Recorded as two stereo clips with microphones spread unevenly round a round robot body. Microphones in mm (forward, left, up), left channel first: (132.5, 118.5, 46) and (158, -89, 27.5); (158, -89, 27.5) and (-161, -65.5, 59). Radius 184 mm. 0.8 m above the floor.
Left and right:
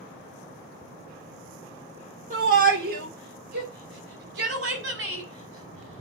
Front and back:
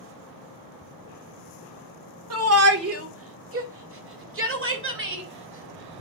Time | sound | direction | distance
2.3 | a shout | 140° right | 2.5 m